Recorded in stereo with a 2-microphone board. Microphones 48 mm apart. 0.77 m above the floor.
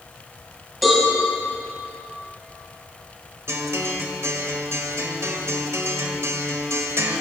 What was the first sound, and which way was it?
A cowbell, centre (ahead or behind).